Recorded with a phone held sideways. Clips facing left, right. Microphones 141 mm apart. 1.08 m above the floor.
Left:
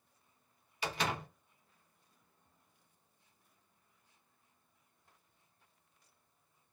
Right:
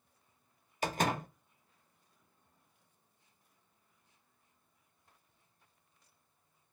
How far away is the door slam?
About 0.6 m.